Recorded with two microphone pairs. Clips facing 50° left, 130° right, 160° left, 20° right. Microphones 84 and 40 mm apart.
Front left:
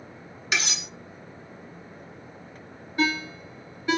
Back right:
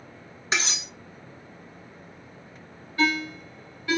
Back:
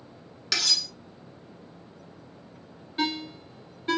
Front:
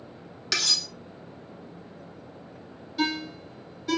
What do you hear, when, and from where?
0.5 s cutlery clinking: 110° right, 0.8 m
3.0 s a ringtone: 115° left, 1.2 m